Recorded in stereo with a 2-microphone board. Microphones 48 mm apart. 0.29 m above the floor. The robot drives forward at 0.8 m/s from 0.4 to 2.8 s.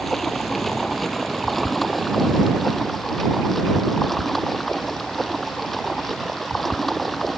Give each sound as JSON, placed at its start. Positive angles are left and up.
{"t": 0.0, "sound": "running water", "side_deg": 5}